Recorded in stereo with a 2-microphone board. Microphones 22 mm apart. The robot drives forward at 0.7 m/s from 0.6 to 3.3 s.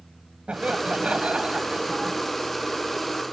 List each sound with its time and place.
0.5 s laughter: 65° right (ahead or behind); by 2.2 s 50° right (ahead or behind)